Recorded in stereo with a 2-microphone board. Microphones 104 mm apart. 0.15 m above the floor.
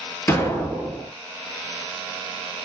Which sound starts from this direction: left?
An explosion, at 0.3 s.